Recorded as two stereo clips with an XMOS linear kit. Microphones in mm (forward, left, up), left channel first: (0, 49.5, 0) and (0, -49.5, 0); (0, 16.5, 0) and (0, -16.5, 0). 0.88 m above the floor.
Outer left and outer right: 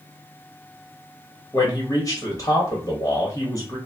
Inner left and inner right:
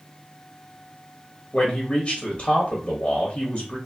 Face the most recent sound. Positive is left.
turn(degrees=35)  # may be behind; listen again after turning